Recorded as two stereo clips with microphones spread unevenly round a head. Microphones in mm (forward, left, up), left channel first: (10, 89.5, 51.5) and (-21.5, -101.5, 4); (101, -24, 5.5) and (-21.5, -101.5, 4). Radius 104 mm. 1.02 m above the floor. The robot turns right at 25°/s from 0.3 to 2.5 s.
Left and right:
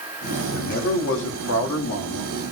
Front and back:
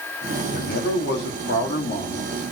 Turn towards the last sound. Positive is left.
turn(degrees=85)